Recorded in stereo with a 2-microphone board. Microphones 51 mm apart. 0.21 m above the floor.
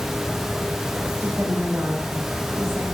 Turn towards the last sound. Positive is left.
turn(degrees=-60)  # may be behind; listen again after turning